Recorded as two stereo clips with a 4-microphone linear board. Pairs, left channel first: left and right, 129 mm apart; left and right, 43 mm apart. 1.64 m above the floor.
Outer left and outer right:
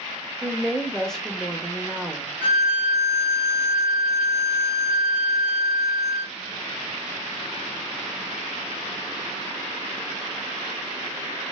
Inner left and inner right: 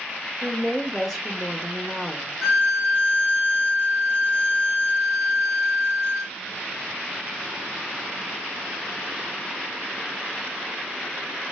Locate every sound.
0.4 s a woman speaking: 5° left (ahead or behind), 0.8 m
2.4 s a violin: 15° left (ahead or behind), 2.5 m